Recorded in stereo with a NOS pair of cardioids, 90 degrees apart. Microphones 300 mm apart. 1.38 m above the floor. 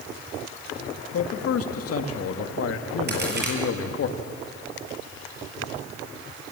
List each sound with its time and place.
1.1 s a man speaking: 55° left, 2 m
3.1 s a crack: 35° right, 7 m